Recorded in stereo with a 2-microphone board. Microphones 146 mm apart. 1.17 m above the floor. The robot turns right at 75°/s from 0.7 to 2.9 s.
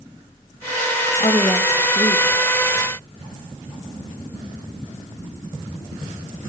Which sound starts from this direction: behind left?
A woman speaking, at 1.2 s.